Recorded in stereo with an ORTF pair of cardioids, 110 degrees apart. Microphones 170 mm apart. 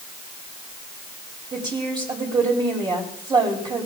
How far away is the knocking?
No knocking in this recording.